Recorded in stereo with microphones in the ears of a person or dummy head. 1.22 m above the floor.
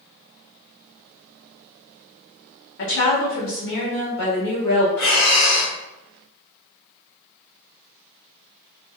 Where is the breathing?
65° left (ahead or behind), 1.1 m.